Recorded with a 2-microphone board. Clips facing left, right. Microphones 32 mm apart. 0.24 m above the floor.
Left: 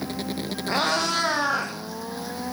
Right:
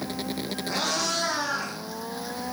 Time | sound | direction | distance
0.7 | a cat meowing | 35° left (ahead or behind) | 2.5 m